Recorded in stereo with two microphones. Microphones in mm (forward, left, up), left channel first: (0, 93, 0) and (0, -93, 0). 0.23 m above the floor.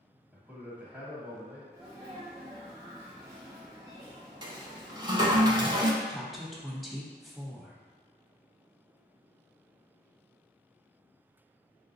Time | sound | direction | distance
0.3 | a man speaking | 10° right (ahead or behind) | 1.4 m
1.7 | a sneeze | 15° right (ahead or behind) | 1.2 m
4.4 | a toilet flushing | 25° right (ahead or behind) | 0.7 m
6.0 | a woman speaking | centre (ahead or behind) | 0.9 m